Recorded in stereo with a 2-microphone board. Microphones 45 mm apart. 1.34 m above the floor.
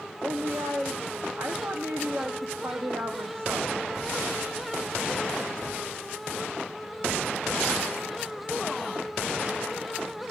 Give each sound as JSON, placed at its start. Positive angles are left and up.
{"t": 0.2, "sound": "a woman speaking", "side_deg": -65, "distance_m": 0.9}